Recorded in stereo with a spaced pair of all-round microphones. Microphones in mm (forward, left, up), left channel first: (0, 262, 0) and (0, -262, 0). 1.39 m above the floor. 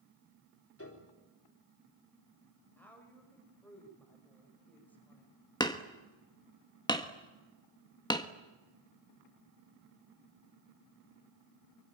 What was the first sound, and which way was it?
A piano, 25° left (ahead or behind).